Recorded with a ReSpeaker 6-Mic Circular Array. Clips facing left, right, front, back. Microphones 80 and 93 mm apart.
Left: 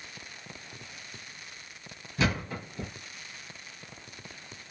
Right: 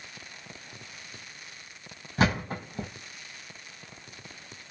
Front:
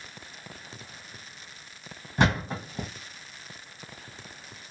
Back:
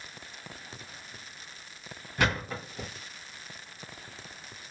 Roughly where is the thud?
Ahead right.